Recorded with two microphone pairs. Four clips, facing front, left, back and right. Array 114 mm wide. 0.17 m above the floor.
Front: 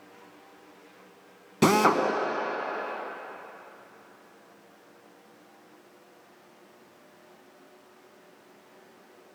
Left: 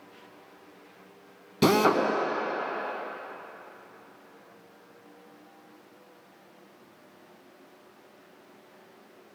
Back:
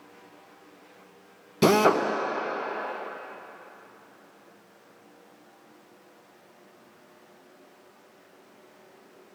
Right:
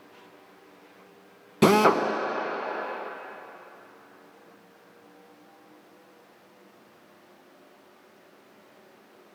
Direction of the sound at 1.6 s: 45° right.